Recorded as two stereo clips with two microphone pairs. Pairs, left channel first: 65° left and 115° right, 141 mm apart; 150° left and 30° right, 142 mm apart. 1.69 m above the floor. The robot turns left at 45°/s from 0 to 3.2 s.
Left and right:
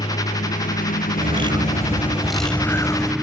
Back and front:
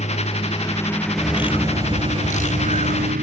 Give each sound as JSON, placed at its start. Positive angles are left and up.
{"t": 0.0, "sound": "a lawn mower", "azimuth_deg": 115}
{"t": 1.2, "sound": "a bird", "azimuth_deg": -150}